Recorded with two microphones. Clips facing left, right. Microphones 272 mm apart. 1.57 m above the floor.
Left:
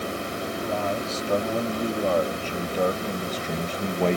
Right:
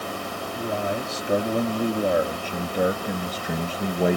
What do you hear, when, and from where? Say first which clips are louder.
0.6 s a man speaking: right 2 dB; 20° right (ahead or behind); by 4.2 s 10° right (ahead or behind)